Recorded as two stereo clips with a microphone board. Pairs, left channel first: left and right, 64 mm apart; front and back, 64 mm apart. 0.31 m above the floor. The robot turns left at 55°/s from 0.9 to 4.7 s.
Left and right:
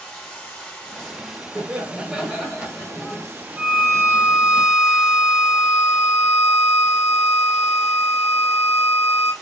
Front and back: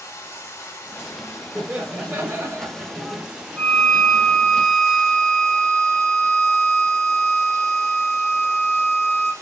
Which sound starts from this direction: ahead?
Running water, at 0.0 s.